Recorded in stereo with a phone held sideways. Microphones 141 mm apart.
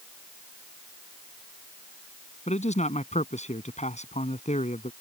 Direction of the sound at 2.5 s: 50° left (ahead or behind).